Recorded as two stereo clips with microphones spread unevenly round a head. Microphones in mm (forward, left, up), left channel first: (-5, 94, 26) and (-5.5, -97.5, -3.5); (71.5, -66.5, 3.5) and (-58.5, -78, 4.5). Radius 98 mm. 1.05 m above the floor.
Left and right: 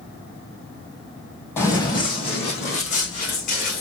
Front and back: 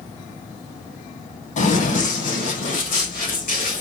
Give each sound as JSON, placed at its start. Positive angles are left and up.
{"t": 1.6, "sound": "running footsteps", "azimuth_deg": 20, "distance_m": 1.9}